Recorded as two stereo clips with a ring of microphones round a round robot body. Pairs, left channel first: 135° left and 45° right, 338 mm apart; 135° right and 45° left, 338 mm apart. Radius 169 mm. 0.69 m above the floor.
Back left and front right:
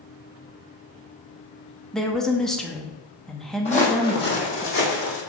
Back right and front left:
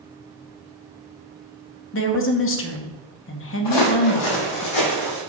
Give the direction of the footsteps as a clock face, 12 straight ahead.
5 o'clock.